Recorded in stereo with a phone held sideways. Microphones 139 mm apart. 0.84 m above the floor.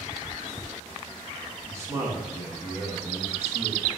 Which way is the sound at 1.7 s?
20° right (ahead or behind).